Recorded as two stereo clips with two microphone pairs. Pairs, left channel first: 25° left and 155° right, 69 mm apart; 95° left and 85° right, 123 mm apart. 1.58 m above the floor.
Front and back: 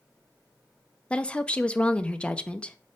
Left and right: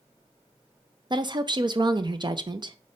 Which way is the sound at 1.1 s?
45° right.